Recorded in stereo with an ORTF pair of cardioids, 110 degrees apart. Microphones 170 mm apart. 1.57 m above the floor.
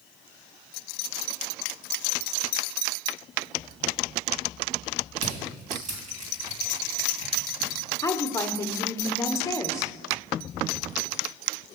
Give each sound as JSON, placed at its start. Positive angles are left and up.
{"t": 5.2, "sound": "crushing", "azimuth_deg": -50, "distance_m": 3.5}
{"t": 8.0, "sound": "a woman speaking", "azimuth_deg": 20, "distance_m": 1.0}